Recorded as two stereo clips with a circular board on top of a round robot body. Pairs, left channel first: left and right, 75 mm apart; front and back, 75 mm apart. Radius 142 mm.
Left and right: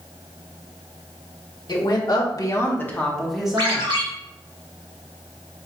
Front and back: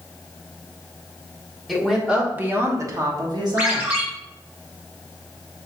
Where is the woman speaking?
90° left, 1.7 m; by 3.9 s 160° right, 1.7 m.